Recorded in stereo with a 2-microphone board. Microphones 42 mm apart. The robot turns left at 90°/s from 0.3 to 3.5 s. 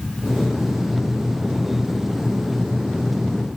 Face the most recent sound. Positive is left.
No sound to turn to.